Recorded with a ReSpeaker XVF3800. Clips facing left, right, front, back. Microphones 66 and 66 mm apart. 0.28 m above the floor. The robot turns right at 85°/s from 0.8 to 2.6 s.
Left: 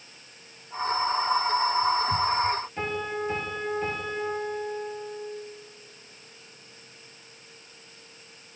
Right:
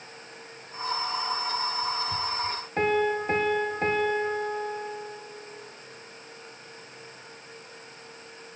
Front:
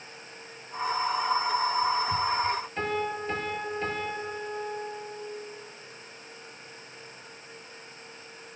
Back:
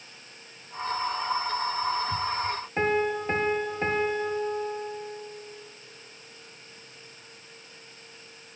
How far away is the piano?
About 1.1 m.